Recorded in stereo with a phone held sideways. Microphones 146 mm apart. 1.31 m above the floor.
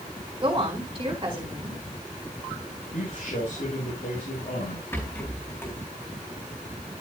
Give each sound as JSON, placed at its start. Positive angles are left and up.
{"t": 0.4, "sound": "a woman speaking", "side_deg": -35, "distance_m": 4.5}
{"t": 2.9, "sound": "a man speaking", "side_deg": 65, "distance_m": 7.5}
{"t": 4.9, "sound": "a rattle", "side_deg": 15, "distance_m": 4.0}